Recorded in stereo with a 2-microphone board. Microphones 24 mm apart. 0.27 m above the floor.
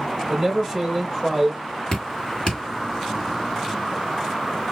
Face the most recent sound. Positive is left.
turn(degrees=50)  # may be behind; listen again after turning